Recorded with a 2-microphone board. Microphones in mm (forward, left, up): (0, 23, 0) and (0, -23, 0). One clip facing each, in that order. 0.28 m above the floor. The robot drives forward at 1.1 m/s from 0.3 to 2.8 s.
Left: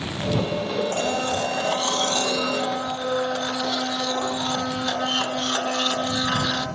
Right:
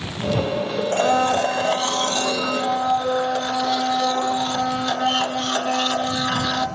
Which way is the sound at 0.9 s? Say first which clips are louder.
Right 6 dB; 40° right (ahead or behind).